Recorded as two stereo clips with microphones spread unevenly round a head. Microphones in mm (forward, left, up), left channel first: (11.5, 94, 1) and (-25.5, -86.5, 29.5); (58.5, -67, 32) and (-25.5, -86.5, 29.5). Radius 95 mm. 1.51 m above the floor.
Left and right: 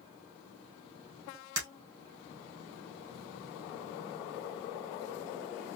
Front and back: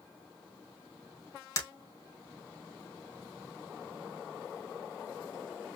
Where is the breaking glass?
35° right, 3 m.